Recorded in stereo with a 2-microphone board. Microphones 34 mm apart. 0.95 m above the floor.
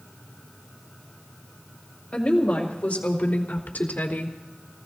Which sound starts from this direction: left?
A woman speaking, at 2.1 s.